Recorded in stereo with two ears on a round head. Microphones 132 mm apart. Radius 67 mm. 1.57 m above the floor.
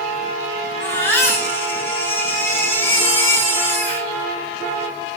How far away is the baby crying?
About 5.5 m.